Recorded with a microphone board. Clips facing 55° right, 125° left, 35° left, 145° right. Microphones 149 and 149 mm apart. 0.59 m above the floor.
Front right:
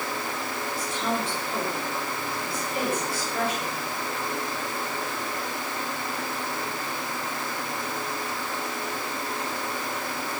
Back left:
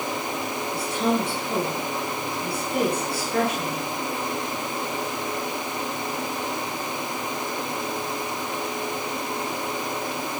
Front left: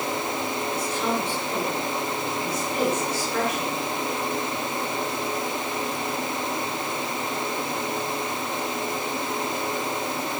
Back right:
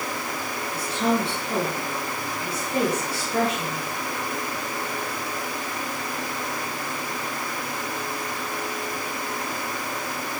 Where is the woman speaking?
155° left, 8 m.